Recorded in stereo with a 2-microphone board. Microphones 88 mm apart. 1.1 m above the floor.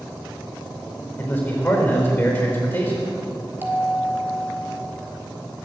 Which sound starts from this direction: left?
A man speaking, at 1.2 s.